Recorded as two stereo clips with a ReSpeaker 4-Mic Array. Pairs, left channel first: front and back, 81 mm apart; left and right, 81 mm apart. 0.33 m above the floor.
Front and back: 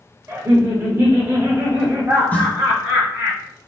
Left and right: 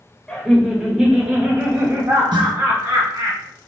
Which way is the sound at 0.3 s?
155° left.